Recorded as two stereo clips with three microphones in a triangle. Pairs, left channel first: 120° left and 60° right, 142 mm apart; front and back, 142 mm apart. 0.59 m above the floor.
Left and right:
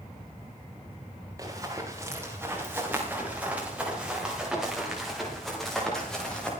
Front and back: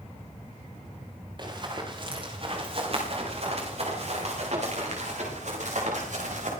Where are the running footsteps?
125° right, 6.5 m; by 6.5 s 155° right, 8 m.